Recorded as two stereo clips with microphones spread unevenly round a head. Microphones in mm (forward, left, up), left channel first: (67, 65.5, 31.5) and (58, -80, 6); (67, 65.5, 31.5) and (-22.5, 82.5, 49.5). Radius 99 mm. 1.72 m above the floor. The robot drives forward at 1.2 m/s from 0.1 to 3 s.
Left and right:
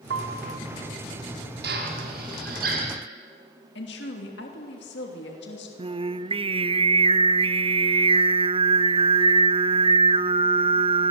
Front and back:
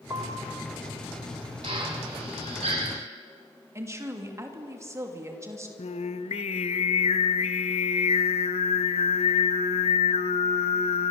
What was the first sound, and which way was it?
A piano, 115° right.